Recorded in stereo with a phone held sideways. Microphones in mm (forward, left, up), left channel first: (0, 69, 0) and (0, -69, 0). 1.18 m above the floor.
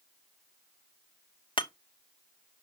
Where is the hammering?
40° left (ahead or behind), 1.0 m.